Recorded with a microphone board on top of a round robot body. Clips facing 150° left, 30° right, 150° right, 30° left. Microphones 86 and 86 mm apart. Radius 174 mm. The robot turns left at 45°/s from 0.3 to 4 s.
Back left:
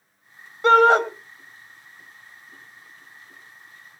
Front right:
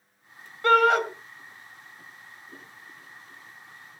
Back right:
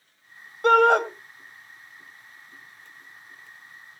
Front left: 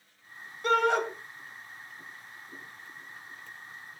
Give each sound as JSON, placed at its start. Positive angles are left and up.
{"t": 0.6, "sound": "a shout", "azimuth_deg": -145, "distance_m": 2.5}